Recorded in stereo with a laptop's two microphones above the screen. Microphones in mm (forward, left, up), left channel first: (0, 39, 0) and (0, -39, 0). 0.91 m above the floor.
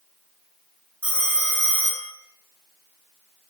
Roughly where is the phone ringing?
Centre.